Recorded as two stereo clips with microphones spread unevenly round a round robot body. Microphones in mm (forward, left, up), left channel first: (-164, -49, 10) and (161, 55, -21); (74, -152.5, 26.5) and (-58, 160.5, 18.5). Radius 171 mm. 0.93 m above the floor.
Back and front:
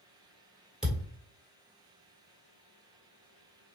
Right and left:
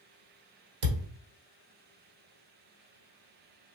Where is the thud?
110° left, 1.6 m.